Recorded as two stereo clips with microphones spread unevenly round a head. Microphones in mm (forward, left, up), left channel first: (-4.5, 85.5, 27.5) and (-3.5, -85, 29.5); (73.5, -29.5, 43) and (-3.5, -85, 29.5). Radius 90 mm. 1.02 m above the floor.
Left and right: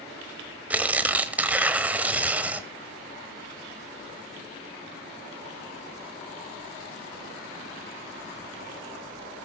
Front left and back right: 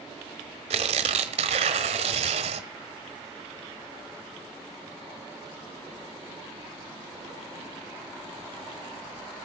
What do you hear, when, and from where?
0.7 s tearing paper: 170° right, 1.1 m